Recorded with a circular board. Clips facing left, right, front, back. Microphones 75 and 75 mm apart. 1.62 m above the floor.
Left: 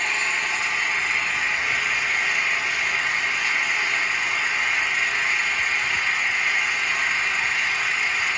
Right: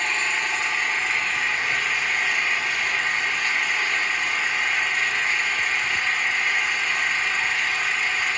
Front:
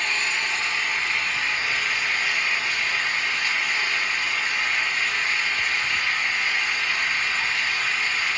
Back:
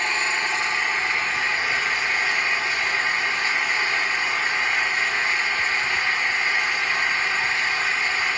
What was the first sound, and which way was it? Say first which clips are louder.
An engine running: even, back 2 dB; 175° left.